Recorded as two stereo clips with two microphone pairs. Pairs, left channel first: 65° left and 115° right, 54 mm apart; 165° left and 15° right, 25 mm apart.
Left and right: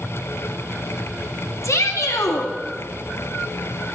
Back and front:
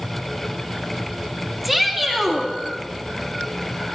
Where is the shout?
65° left, 2 m.